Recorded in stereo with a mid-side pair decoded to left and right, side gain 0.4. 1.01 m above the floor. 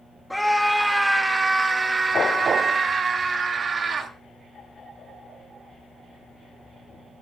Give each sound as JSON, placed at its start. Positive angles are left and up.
{"t": 0.3, "sound": "a scream", "azimuth_deg": 5, "distance_m": 1.2}